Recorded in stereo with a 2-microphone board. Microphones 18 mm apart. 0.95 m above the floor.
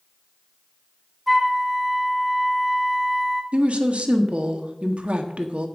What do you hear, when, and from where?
1.3 s a flute: 5° right (ahead or behind), 1.1 m
3.5 s a woman speaking: 80° right, 1.3 m